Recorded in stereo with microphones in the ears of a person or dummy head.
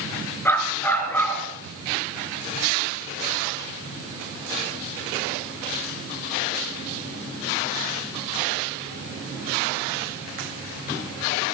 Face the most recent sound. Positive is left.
turn(degrees=10)  # may be behind; listen again after turning